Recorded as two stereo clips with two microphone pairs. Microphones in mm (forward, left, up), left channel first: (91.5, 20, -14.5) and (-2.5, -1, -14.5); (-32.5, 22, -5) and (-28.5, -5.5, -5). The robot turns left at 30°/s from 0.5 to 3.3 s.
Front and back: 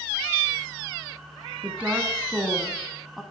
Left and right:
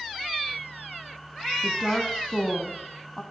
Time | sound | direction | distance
1.6 | a woman speaking | 145° left | 1.1 m